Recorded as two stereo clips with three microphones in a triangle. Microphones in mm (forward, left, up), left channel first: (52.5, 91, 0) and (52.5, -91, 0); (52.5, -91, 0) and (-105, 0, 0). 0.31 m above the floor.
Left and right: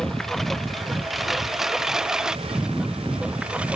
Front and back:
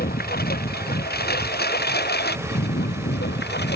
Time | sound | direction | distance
0.0 | a lawn mower | straight ahead | ?